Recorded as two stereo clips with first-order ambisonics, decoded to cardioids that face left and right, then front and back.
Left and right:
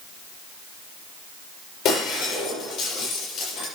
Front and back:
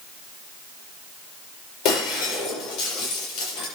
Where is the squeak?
No squeak in this recording.